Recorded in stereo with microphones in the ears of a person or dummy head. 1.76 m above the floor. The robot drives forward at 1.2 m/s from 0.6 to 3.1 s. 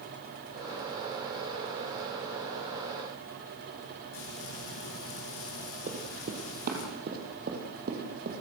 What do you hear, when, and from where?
4.1 s frying: 80° left, 8 m
5.9 s running footsteps: 45° right (ahead or behind), 3 m; by 8.4 s 55° right (ahead or behind), 5 m